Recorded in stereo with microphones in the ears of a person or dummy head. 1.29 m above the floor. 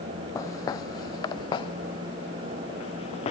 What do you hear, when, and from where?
0.3 s footsteps: 15° left (ahead or behind); by 3.3 s 30° left (ahead or behind)